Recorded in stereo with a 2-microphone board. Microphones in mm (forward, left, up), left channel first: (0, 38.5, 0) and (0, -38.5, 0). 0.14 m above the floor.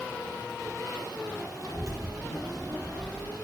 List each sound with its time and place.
1.6 s a child speaking: 35° right (ahead or behind), 3 m; by 3.3 s 70° right (ahead or behind), 3.5 m